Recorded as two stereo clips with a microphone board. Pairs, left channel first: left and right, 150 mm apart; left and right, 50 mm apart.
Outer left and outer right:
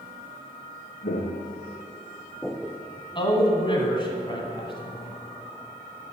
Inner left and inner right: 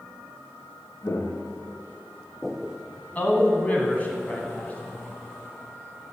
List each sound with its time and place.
1.0 s footsteps: 75° left (ahead or behind), 1.5 m; by 2.8 s 15° right (ahead or behind), 1.0 m
3.1 s a man speaking: 30° left (ahead or behind), 2.0 m